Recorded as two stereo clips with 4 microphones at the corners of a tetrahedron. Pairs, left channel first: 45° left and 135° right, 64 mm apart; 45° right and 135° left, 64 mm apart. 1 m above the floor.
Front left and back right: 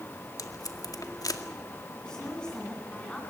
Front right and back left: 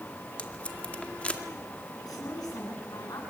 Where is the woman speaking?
35° right, 9.5 m.